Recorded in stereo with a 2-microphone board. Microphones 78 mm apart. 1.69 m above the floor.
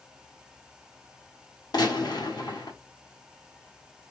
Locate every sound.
1.7 s a gunshot: 60° left (ahead or behind), 1.2 m